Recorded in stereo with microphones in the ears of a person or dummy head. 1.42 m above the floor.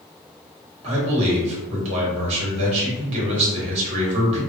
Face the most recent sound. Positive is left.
turn(degrees=-35)  # may be behind; listen again after turning